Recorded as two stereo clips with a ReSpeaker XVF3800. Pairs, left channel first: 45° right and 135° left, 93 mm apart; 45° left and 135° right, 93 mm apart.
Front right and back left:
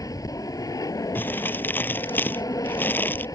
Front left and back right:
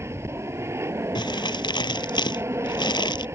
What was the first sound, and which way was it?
An aircraft, 80° right.